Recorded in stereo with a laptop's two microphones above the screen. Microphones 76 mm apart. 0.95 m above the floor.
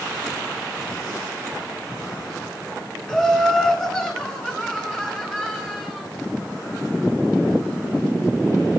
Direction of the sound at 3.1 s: 10° left (ahead or behind).